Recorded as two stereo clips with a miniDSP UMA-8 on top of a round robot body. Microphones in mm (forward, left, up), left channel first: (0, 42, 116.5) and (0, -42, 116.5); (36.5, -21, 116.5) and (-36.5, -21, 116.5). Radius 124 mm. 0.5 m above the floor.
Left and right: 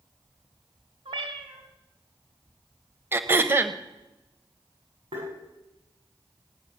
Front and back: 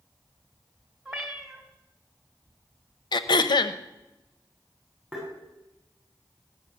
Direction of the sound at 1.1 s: 95° right.